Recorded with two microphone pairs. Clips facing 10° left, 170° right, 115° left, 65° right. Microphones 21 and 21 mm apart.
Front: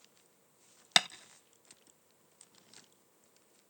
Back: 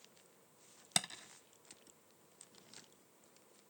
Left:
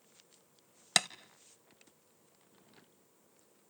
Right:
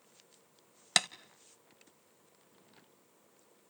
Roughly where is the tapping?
Ahead.